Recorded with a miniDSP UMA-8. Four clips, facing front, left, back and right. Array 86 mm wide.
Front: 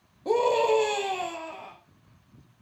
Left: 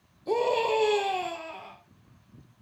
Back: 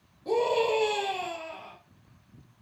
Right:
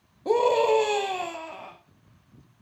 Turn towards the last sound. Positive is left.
turn(degrees=-65)